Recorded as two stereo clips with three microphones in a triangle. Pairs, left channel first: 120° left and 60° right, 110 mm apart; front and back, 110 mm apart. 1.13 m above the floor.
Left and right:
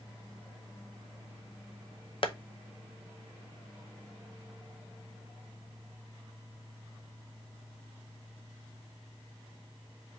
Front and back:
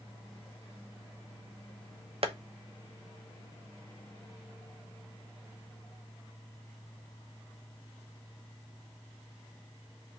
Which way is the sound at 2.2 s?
155° left.